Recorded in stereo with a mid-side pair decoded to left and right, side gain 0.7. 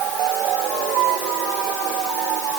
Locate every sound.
Only background noise.